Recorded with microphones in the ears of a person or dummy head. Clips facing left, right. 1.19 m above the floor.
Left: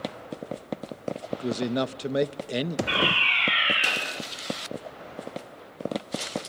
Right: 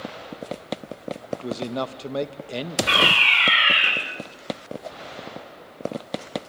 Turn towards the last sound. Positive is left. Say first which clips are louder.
# right 3 dB
turn(degrees=-75)  # may be behind; listen again after turning